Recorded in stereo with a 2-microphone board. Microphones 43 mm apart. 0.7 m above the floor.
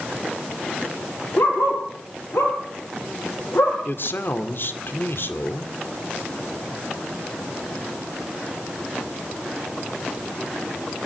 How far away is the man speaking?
About 2 m.